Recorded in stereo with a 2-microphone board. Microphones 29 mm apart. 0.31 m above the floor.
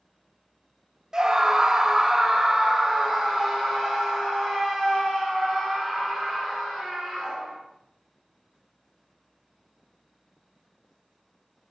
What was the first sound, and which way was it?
A scream, 25° right (ahead or behind).